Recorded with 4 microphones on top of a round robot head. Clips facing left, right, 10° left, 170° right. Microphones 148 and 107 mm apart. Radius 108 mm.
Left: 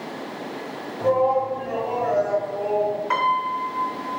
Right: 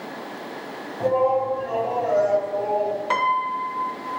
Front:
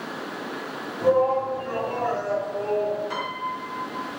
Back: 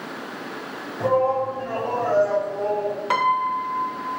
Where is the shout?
150° right, 3.5 m; by 3.0 s 165° right, 3 m.